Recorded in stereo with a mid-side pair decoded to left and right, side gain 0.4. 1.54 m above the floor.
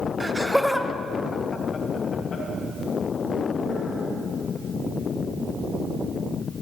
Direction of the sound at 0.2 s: 15° right.